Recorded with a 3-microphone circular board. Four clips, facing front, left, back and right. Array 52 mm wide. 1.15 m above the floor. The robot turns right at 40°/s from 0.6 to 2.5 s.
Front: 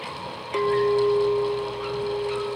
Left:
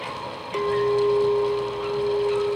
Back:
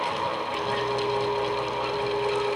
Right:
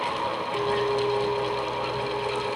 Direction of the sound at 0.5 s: 20° left.